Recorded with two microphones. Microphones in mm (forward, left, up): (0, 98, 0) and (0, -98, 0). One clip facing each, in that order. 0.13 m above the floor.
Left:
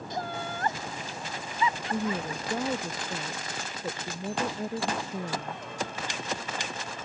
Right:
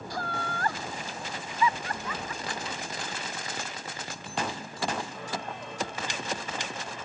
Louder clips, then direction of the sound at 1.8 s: Left 6 dB; 65° left (ahead or behind).